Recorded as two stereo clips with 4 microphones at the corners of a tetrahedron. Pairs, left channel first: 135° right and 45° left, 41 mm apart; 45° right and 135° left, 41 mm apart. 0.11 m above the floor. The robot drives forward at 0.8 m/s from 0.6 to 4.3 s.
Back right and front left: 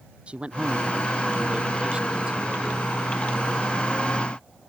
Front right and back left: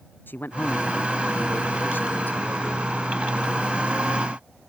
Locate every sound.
0.3 s a man speaking: 15° right; by 2.9 s 25° right